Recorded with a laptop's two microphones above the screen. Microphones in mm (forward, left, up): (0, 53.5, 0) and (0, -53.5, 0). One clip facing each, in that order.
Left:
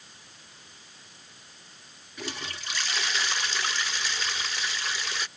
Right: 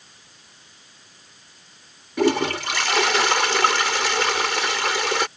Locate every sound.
2.2 s a toilet flushing: 80° right